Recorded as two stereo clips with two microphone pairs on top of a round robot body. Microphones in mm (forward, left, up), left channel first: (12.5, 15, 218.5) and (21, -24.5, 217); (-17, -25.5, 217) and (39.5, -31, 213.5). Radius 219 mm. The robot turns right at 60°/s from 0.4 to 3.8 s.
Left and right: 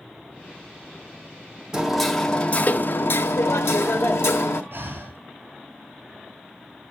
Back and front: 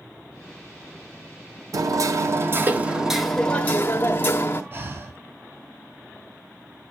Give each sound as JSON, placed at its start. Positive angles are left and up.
{"t": 1.7, "sound": "hammering", "azimuth_deg": -5, "distance_m": 1.4}
{"t": 4.7, "sound": "breathing", "azimuth_deg": -45, "distance_m": 4.0}